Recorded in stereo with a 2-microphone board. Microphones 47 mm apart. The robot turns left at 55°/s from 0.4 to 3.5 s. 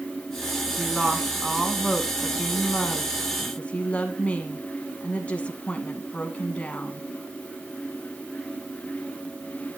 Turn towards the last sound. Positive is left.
turn(degrees=70)